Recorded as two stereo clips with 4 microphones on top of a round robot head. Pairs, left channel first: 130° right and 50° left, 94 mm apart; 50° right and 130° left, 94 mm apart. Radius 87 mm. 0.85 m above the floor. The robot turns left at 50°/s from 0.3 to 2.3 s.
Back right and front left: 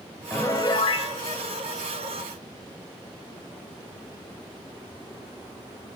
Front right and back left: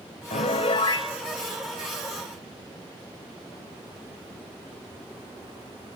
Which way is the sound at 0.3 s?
60° right.